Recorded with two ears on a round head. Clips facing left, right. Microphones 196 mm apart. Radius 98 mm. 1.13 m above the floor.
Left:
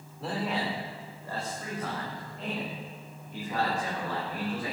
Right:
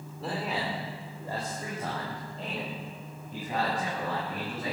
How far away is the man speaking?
About 3 m.